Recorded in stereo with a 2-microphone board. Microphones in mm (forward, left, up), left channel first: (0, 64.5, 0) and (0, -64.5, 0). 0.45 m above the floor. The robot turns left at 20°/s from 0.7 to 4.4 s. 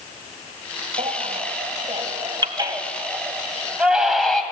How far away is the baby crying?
About 2 m.